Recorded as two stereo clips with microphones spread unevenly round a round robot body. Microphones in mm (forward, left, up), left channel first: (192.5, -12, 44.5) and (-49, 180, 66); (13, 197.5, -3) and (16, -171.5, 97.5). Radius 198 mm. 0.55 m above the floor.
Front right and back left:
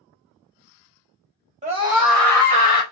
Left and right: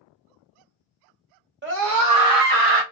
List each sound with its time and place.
1.6 s a scream: 155° right, 1.4 m; by 2.8 s 80° right, 1.5 m